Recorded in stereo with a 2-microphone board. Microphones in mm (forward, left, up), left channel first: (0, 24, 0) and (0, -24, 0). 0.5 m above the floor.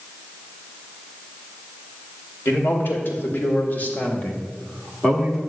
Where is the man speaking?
55° left (ahead or behind), 2.5 m; by 5.4 s centre (ahead or behind), 1.6 m.